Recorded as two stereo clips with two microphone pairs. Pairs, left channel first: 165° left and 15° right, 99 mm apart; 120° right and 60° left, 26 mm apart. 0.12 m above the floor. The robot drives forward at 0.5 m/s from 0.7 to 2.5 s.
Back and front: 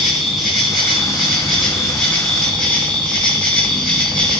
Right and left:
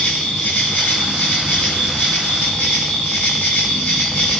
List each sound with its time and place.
0.0 s an insect: 105° right, 7 m; by 4.4 s 115° right, 7.5 m